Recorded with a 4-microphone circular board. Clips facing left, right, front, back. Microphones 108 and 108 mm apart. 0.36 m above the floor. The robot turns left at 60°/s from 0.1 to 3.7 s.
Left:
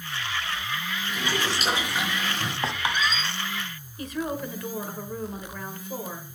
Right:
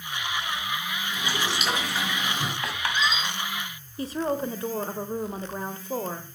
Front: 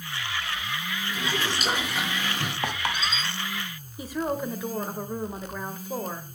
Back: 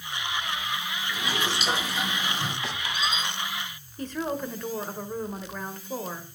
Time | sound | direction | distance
1.1 | boiling | 70° left | 6 m
2.6 | a squeak | 35° left | 1.5 m
4.0 | a woman speaking | 75° right | 1.1 m